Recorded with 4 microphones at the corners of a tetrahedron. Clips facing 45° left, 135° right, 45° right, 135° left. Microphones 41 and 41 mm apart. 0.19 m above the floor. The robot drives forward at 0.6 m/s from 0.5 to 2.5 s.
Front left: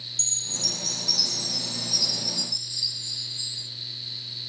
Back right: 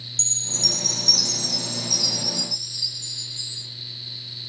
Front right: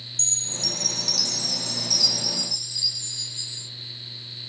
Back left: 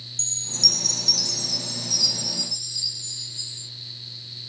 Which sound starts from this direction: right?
A chime, at 0.2 s.